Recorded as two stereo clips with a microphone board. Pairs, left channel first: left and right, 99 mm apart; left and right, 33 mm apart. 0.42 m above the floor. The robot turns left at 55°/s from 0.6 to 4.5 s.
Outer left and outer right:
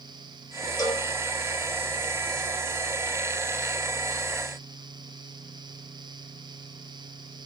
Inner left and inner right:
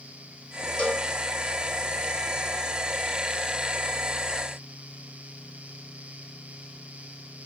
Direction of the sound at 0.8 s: 30° left (ahead or behind).